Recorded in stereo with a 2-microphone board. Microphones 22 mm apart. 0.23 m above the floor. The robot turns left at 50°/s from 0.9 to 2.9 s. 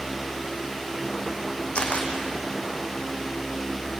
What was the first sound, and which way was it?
A camera shutter, 55° left (ahead or behind).